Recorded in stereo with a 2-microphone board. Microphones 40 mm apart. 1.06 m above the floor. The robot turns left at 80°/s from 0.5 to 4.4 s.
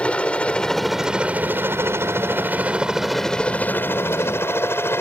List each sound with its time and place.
0.0 s a helicopter: 30° left (ahead or behind); by 5.0 s 70° left (ahead or behind)